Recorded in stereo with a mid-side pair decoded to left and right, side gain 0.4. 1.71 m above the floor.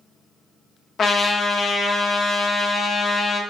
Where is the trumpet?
60° left, 0.7 m.